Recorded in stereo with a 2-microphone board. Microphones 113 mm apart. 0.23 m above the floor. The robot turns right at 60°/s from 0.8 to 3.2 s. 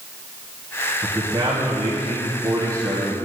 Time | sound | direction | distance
1.0 | a man speaking | 150° right | 1.4 m